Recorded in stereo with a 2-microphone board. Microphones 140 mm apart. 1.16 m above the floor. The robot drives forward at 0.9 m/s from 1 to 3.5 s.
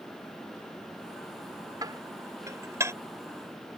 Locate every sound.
1.8 s dishes clattering: 30° right (ahead or behind); by 2.9 s 20° right (ahead or behind)